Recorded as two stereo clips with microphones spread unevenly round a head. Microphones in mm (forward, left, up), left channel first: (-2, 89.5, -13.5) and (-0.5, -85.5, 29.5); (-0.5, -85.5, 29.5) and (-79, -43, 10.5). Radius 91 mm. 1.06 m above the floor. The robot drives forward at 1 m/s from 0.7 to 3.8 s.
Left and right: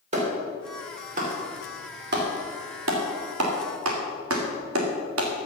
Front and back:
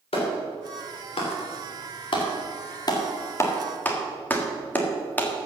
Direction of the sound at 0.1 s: 35° right.